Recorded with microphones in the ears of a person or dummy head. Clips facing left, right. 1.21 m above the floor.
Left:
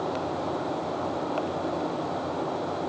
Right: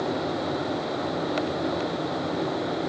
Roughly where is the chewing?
No chewing in this recording.